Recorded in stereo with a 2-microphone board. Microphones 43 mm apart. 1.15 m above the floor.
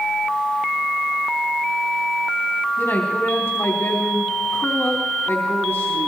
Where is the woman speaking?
80° left, 4 m.